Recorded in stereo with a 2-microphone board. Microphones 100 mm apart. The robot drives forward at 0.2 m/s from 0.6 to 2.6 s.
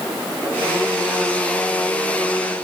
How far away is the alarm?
No alarm in this recording.